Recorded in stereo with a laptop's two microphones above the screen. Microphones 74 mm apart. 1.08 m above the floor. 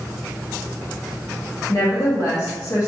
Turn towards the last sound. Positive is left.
turn(degrees=50)  # may be behind; listen again after turning